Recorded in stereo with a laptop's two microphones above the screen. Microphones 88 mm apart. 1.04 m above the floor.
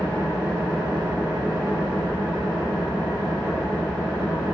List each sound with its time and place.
0.0 s an engine running: 35° right (ahead or behind), 4 m